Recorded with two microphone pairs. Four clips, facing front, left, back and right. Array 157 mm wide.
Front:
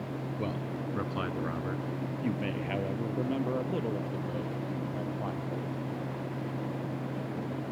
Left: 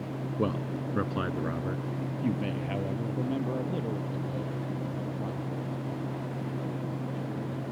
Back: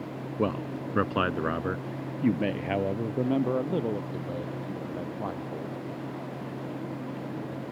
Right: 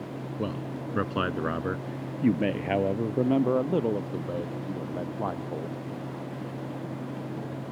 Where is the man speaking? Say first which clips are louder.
Left 3 dB, back 9 dB; 150° left; by 5.8 s 100° right.